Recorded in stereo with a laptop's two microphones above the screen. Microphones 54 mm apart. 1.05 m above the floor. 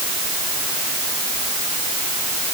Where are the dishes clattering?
No dishes clattering in this recording.